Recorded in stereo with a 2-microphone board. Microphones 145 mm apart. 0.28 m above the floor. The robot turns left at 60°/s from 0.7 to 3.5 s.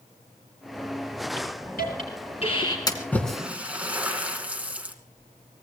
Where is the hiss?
70° left (ahead or behind), 5 m; by 2.8 s 25° left (ahead or behind), 5 m.